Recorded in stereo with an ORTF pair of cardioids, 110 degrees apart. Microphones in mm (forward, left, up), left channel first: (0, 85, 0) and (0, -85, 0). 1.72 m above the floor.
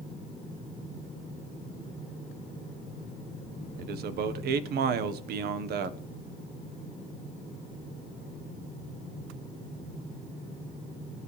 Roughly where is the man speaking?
Right.